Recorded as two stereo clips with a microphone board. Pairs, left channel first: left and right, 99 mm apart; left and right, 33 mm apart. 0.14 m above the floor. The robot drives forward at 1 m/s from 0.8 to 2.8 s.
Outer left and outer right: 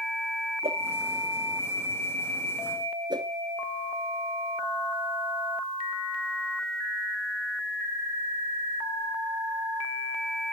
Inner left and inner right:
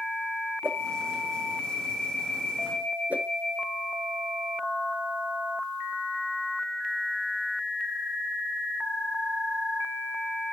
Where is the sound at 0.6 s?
80° right, 2.5 m.